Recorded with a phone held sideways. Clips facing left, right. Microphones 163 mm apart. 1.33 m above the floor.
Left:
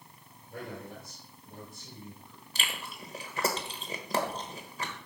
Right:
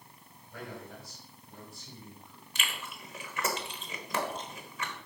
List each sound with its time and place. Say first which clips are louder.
0.5 s a man speaking: left 2 dB; 45° left (ahead or behind), 4 m
2.5 s chewing: left 1 dB; 35° left (ahead or behind), 1.2 m